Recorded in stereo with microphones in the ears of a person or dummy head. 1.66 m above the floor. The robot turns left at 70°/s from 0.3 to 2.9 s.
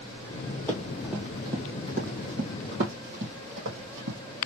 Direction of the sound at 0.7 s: 10° left (ahead or behind).